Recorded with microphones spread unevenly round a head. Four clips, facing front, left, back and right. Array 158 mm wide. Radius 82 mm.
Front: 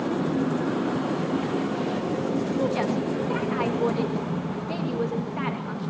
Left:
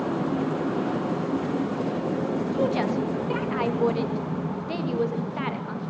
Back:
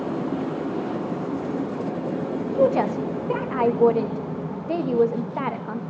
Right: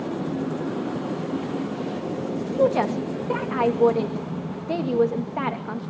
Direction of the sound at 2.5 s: 140° right.